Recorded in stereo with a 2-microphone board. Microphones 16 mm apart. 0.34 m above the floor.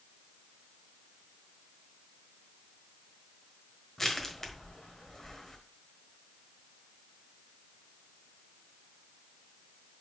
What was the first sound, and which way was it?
Crushing, 30° left (ahead or behind).